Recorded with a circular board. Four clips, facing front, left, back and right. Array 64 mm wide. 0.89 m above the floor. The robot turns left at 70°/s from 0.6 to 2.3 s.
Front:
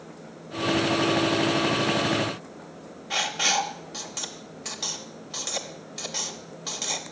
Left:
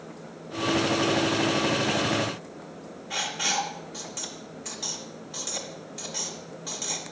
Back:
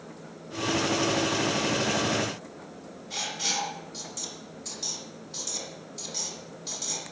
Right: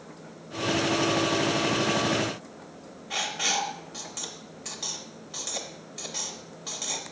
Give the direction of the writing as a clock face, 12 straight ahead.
12 o'clock.